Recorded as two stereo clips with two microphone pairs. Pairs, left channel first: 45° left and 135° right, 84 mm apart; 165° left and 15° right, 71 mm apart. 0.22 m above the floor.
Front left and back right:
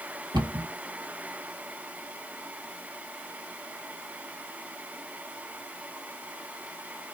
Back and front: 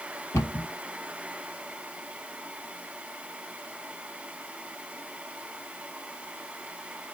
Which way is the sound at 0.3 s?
150° right.